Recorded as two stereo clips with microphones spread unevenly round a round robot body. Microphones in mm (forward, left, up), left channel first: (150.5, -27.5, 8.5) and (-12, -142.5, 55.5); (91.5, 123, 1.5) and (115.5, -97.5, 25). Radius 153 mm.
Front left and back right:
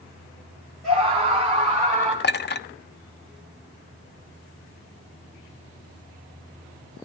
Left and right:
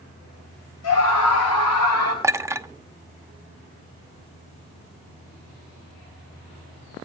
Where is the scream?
120° left, 6 m; by 2.1 s 125° left, 8 m.